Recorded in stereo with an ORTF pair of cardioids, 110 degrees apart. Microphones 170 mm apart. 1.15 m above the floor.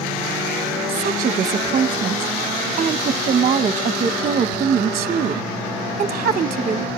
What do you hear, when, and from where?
0.9 s a woman speaking: 45° right, 0.8 m